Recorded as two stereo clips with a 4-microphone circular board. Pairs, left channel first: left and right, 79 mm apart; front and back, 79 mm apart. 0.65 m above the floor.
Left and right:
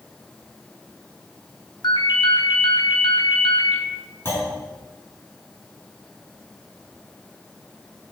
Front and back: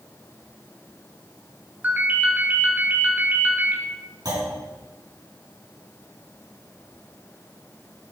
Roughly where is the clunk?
Behind left.